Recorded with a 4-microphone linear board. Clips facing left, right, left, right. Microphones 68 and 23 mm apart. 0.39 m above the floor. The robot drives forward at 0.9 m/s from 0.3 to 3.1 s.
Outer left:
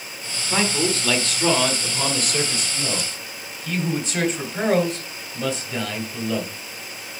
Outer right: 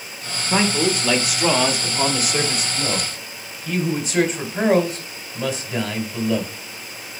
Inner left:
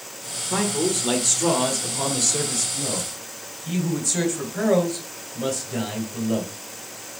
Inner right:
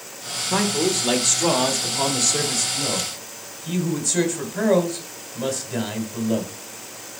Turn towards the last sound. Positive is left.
turn(degrees=-5)  # may be behind; listen again after turning